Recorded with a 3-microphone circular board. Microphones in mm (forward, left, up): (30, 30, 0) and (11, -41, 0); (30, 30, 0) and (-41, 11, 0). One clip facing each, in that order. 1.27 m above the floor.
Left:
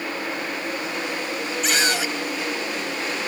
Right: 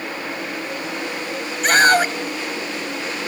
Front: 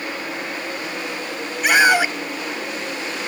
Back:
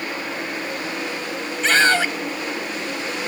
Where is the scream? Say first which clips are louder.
Right 10 dB, front 2 dB; 60° right.